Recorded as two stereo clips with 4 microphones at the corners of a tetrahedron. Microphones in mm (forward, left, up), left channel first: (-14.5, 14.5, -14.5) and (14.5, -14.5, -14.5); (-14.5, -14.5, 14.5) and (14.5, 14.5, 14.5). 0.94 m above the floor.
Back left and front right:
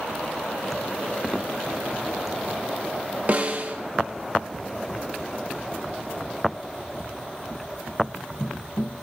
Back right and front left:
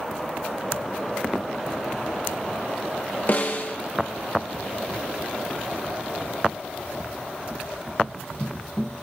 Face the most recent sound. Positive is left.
turn(degrees=-95)